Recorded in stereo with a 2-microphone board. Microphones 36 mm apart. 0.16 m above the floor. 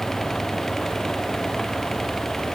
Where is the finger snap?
No finger snap in this recording.